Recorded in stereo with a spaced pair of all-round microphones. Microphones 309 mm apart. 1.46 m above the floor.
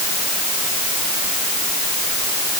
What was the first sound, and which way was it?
Only background noise.